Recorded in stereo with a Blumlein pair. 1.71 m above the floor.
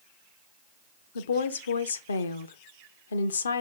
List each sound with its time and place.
1.1 s a woman speaking: 70° left, 0.5 m